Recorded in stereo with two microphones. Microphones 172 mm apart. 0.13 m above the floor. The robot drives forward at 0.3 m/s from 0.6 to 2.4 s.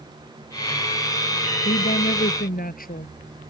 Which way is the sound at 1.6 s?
60° left (ahead or behind).